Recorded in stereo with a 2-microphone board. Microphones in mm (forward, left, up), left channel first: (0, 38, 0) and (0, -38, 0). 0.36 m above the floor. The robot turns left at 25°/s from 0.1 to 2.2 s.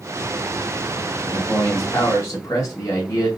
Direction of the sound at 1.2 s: 20° left (ahead or behind).